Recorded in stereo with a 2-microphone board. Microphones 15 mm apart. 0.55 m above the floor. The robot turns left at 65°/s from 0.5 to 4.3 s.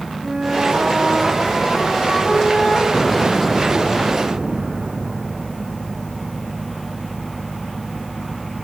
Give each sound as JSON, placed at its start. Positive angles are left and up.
{"t": 0.2, "sound": "a flute", "azimuth_deg": -140, "distance_m": 4.5}
{"t": 2.9, "sound": "an explosion", "azimuth_deg": 30, "distance_m": 2.0}